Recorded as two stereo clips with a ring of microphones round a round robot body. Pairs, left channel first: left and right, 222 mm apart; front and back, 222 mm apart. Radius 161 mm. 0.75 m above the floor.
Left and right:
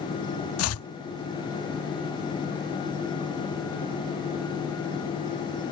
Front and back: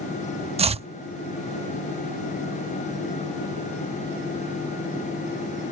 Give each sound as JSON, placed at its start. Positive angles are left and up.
{"t": 0.6, "sound": "chopping", "azimuth_deg": 115}